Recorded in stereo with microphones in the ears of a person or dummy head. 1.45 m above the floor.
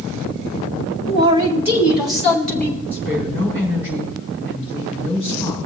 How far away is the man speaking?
About 2 m.